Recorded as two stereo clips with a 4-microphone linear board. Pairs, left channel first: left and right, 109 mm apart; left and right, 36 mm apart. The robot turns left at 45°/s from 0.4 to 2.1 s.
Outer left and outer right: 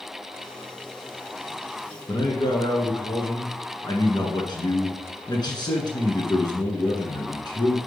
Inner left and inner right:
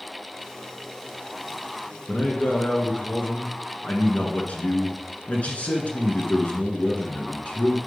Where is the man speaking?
40° left (ahead or behind), 2 m.